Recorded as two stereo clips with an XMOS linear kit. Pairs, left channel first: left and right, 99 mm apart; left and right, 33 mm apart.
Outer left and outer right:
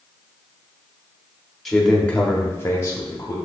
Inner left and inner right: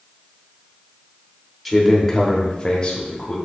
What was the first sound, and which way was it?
A man speaking, centre (ahead or behind).